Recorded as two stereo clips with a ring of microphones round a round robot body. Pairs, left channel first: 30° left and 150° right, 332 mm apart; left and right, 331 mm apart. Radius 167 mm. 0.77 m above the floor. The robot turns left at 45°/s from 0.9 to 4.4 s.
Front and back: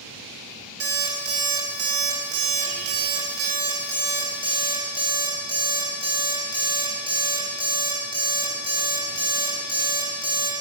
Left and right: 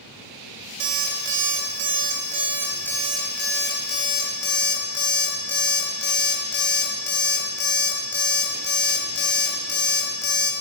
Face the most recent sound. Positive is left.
turn(degrees=105)